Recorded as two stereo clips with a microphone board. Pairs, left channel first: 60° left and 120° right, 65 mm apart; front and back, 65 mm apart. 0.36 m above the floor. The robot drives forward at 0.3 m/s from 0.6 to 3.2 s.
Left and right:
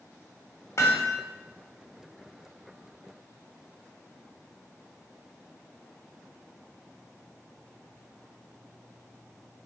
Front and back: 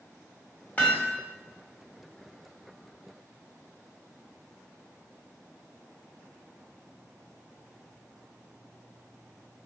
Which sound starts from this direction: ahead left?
Hammering, at 0.8 s.